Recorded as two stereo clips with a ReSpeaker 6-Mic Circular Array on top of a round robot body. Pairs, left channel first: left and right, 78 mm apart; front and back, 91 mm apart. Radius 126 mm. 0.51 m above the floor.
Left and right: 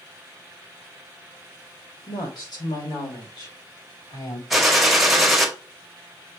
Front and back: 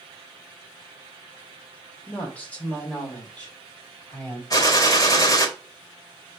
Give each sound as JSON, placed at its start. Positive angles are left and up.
{"t": 2.1, "sound": "a woman speaking", "azimuth_deg": 70, "distance_m": 2.5}
{"t": 4.5, "sound": "a gunshot", "azimuth_deg": -5, "distance_m": 1.6}